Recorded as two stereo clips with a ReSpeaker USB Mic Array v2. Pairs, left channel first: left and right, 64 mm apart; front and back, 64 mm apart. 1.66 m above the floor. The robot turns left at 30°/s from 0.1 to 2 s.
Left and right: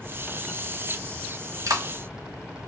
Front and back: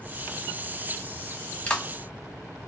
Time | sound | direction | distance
1.7 | a clap | 65° right | 1.7 m